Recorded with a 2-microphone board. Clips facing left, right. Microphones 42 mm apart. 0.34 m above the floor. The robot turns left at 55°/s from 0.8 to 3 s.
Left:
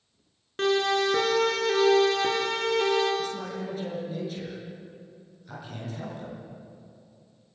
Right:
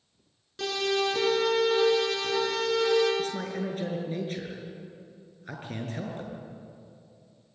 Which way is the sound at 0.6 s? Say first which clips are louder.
Left 4 dB; 45° left (ahead or behind).